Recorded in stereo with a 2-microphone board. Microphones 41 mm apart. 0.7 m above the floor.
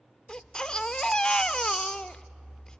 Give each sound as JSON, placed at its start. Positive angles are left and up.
{"t": 0.3, "sound": "a baby crying", "side_deg": 20, "distance_m": 0.6}